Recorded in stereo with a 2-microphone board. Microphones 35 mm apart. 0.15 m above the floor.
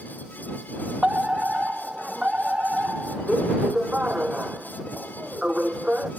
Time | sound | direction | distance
1.0 | a fire alarm | 25° right (ahead or behind) | ?